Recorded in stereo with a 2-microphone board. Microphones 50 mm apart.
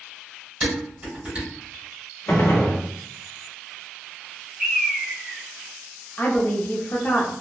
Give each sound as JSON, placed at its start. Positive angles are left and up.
{"t": 0.6, "sound": "dishes clattering", "side_deg": -20, "distance_m": 1.4}
{"t": 2.3, "sound": "a gunshot", "side_deg": 45, "distance_m": 0.5}
{"t": 4.6, "sound": "a bird", "side_deg": -15, "distance_m": 0.8}
{"t": 6.2, "sound": "a woman speaking", "side_deg": 35, "distance_m": 0.6}